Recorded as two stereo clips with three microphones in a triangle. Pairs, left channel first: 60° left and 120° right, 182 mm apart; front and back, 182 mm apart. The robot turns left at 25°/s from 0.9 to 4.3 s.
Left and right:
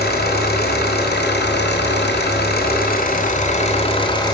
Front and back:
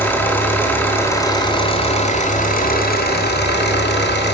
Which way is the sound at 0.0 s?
75° left.